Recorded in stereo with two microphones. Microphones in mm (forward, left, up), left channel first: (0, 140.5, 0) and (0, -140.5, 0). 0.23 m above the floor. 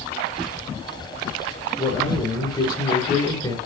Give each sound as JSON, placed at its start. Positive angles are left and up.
{"t": 1.8, "sound": "a man speaking", "side_deg": 15, "distance_m": 5.0}